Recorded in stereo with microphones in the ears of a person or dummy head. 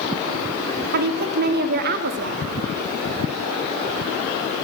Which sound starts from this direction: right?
A woman speaking, at 0.9 s.